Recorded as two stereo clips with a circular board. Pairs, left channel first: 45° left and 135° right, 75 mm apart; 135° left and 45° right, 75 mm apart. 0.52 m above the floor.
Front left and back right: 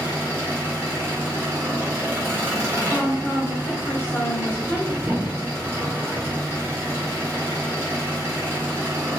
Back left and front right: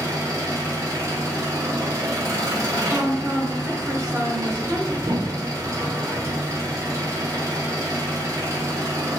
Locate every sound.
0.0 s an engine running: 80° right, 1.5 m
2.9 s a woman speaking: straight ahead, 1.0 m
5.0 s a thud: 65° right, 1.0 m